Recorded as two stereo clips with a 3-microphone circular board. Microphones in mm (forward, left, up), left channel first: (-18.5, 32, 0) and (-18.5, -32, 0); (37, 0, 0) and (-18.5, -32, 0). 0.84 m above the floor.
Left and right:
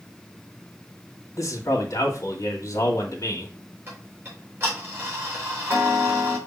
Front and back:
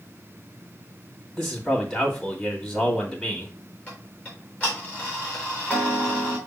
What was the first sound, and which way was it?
A man speaking, 105° left.